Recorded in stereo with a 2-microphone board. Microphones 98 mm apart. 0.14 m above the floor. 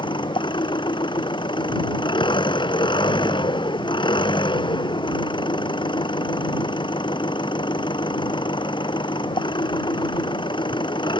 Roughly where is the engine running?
Left.